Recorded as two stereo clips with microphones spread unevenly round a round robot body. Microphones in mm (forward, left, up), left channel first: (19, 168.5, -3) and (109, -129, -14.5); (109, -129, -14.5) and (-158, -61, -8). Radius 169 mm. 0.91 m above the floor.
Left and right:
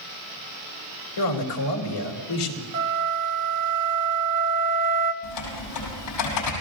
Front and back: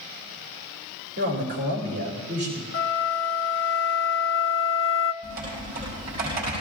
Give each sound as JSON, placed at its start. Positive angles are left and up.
{"t": 1.2, "sound": "a man speaking", "azimuth_deg": 105, "distance_m": 3.0}
{"t": 2.7, "sound": "a flute", "azimuth_deg": -55, "distance_m": 1.1}
{"t": 5.2, "sound": "typing on a keyboard", "azimuth_deg": 100, "distance_m": 6.0}